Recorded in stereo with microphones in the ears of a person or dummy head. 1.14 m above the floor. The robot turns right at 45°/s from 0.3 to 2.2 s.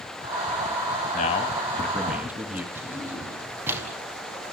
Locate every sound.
1.1 s a man speaking: 140° left, 2.0 m; by 2.6 s 170° right, 2.0 m
2.8 s a drawer: 15° right (ahead or behind), 5 m